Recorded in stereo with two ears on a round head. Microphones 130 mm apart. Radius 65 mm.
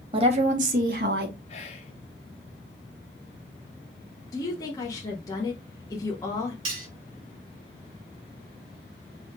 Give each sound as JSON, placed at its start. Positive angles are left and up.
{"t": 0.1, "sound": "a woman speaking", "side_deg": -35, "distance_m": 0.8}
{"t": 1.5, "sound": "whispering", "side_deg": 45, "distance_m": 1.2}
{"t": 4.3, "sound": "a woman speaking", "side_deg": 25, "distance_m": 0.8}
{"t": 6.7, "sound": "cutlery clinking", "side_deg": -40, "distance_m": 2.5}